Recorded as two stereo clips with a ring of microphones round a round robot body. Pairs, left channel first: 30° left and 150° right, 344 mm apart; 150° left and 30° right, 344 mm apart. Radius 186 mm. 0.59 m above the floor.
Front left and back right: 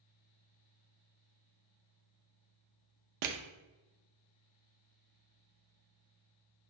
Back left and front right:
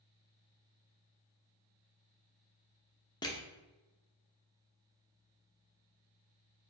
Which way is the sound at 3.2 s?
130° right.